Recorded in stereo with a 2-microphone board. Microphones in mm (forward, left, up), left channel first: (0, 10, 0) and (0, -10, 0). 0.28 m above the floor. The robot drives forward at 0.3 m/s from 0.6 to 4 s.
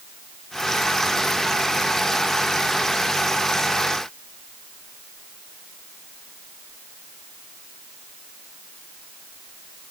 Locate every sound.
Only background noise.